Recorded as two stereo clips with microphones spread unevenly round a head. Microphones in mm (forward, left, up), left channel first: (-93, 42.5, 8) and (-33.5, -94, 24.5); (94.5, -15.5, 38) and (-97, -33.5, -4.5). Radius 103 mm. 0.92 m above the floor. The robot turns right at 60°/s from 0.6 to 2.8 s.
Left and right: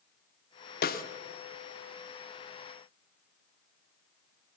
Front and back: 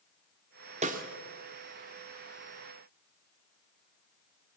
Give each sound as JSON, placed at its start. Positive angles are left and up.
{"t": 0.8, "sound": "a snare drum", "azimuth_deg": 130, "distance_m": 1.5}